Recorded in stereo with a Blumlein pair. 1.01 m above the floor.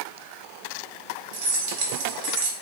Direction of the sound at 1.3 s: 50° right.